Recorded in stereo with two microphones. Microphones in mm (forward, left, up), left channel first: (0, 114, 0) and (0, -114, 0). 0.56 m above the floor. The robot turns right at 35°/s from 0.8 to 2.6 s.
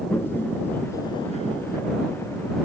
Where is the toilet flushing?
10° left (ahead or behind); by 1.8 s 45° left (ahead or behind).